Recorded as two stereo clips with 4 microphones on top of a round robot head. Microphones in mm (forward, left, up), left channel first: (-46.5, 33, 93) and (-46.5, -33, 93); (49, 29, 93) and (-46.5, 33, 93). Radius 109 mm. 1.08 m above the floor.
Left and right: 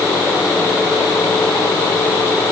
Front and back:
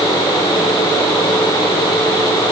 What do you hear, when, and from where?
Only background noise.